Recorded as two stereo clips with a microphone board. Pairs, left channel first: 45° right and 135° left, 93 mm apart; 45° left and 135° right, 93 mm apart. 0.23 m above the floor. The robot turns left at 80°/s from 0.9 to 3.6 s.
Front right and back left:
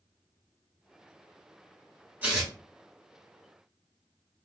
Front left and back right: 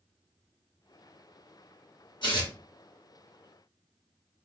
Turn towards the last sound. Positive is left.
turn(degrees=-45)